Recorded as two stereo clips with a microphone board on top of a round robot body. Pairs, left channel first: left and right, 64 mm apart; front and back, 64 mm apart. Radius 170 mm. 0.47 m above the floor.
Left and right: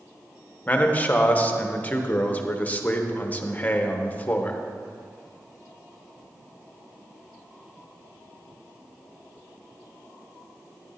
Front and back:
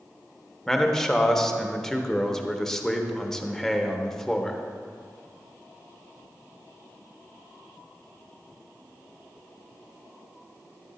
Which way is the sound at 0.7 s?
70° left.